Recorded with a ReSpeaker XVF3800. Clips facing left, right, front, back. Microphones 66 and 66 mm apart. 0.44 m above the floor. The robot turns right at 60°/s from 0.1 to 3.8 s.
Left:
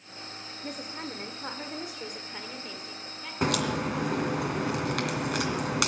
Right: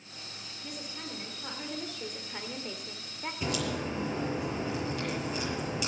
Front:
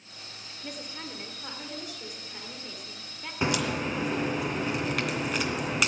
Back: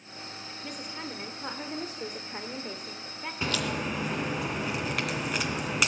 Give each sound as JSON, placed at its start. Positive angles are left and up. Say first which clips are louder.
{"t": 0.6, "sound": "a woman speaking", "louder": "left 5 dB, even", "azimuth_deg": 80, "distance_m": 1.3}
{"t": 3.4, "sound": "a crack", "louder": "left 6 dB, front 3 dB", "azimuth_deg": 70, "distance_m": 2.5}